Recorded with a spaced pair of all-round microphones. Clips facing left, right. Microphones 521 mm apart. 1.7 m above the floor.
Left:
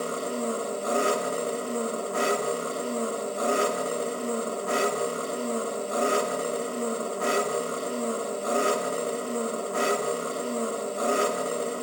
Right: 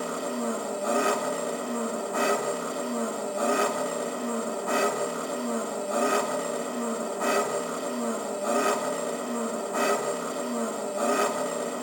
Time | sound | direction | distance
0.0 | an engine running | 10° right (ahead or behind) | 1.1 m